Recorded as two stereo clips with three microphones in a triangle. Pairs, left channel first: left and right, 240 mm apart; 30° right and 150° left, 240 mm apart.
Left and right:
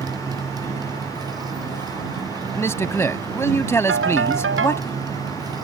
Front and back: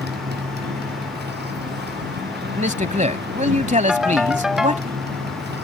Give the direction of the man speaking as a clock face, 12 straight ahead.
7 o'clock.